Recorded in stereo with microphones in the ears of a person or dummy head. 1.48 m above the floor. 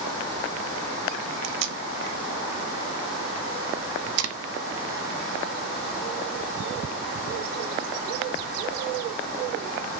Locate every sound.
1.4 s tape being pulled: 75° right (ahead or behind), 0.6 m